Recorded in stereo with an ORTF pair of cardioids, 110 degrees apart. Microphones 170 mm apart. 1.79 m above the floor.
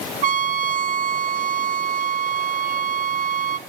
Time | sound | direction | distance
0.2 | a trumpet | 55° right | 1.0 m